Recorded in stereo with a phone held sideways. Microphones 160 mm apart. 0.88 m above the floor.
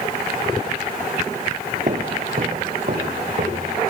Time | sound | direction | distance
1.9 | footsteps | 50° right (ahead or behind) | 1.2 m